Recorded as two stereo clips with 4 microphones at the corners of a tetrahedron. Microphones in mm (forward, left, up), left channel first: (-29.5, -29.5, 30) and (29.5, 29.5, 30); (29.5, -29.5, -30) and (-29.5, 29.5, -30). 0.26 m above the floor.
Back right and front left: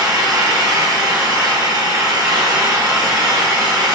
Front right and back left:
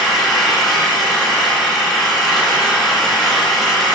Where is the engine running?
45° left, 1.6 m.